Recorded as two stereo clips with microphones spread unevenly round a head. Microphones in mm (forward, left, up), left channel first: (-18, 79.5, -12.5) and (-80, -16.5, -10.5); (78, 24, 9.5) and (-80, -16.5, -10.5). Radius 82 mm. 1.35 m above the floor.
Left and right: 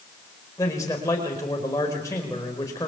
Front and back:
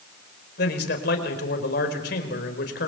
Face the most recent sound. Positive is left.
turn(degrees=-15)